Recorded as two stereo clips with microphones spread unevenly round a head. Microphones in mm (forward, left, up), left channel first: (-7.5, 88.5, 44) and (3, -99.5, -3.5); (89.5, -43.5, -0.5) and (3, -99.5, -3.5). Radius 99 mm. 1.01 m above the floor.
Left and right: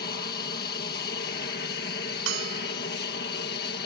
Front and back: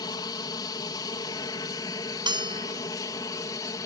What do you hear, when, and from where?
0.0 s an aircraft: 65° left; by 3.9 s 75° left
2.3 s a bell: 105° right